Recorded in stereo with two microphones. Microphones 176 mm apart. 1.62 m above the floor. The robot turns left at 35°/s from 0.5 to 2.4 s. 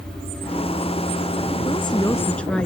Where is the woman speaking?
30° left (ahead or behind); by 2.7 s 5° left (ahead or behind).